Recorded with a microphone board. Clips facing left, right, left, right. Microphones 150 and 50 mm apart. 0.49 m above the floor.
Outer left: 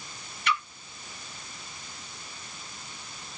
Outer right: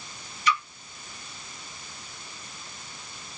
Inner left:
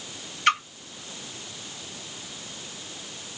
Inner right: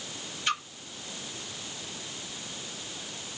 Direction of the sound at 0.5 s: 60° left (ahead or behind).